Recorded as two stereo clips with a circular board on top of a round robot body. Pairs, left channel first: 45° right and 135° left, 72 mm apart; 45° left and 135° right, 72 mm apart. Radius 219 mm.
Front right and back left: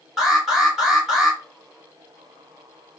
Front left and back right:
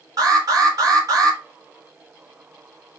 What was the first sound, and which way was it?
An alarm, 145° right.